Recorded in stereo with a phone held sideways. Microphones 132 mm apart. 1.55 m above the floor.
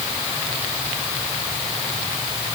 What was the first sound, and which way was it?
Only background noise.